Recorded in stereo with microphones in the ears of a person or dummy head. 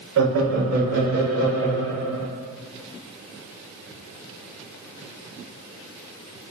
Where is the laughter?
65° right (ahead or behind), 0.8 m; by 2.3 s 90° right, 3 m.